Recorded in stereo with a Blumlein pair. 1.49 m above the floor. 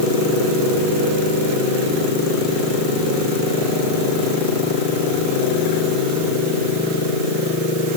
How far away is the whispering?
I don't hear whispering.